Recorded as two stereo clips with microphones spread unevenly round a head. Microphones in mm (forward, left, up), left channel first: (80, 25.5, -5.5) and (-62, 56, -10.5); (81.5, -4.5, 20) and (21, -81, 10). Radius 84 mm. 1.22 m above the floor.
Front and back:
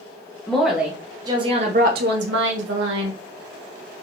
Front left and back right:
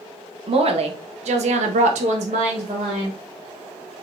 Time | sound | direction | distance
0.5 | a woman speaking | 100° right | 1.2 m